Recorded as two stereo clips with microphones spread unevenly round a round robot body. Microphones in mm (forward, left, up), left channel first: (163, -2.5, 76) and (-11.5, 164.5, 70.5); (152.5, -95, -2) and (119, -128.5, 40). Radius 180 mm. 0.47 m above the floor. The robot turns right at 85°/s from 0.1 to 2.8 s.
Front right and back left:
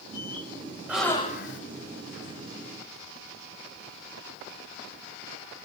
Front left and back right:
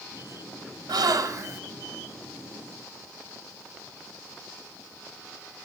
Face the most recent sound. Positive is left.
turn(degrees=20)